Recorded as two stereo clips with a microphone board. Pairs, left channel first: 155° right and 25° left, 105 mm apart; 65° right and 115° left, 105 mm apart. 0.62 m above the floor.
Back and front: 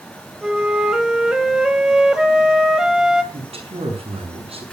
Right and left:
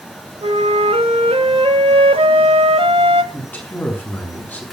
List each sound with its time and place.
0.4 s a flute: 105° left, 1.4 m
3.3 s a man speaking: 5° left, 6.5 m